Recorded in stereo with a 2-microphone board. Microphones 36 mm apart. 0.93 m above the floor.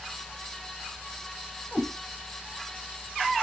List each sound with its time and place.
1.7 s a cat meowing: 30° left (ahead or behind), 3 m